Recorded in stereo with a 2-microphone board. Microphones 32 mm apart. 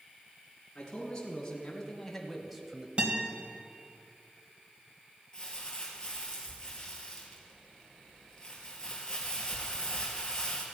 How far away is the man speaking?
About 4 m.